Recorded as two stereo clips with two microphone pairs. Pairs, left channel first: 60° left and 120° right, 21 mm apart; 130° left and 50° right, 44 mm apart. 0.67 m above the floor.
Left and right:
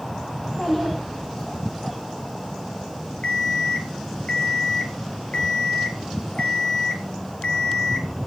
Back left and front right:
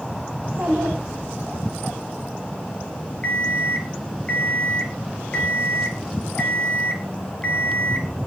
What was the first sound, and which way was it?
A child speaking, straight ahead.